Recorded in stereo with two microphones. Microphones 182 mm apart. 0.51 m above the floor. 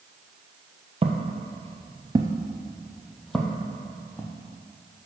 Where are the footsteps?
35° right (ahead or behind), 0.8 m; by 4.3 s 10° left (ahead or behind), 1.5 m.